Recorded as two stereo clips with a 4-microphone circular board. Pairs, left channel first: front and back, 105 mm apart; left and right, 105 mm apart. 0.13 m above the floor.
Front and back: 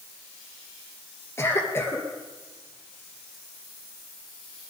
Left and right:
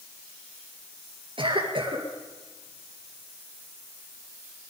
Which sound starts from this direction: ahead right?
A cough, at 1.4 s.